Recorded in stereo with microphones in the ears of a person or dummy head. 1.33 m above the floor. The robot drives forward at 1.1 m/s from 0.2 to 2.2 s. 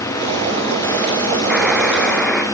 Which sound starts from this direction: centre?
A buzzer, at 1.5 s.